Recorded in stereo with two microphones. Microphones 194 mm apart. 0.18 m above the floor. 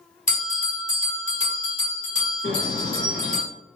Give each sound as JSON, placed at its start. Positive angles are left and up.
{"t": 0.3, "sound": "a bell", "side_deg": 40, "distance_m": 1.9}
{"t": 2.4, "sound": "a bird", "side_deg": -30, "distance_m": 1.9}